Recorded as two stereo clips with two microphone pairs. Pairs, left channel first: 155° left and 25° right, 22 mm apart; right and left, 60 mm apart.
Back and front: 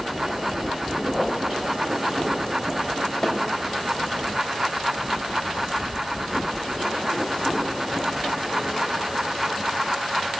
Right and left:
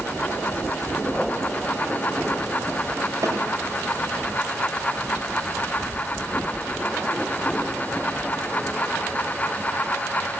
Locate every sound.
3.2 s a snare drum: 75° left, 3 m